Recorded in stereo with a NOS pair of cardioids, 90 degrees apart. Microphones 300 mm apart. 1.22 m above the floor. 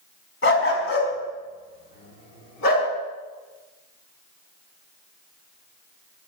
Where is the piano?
I don't hear a piano.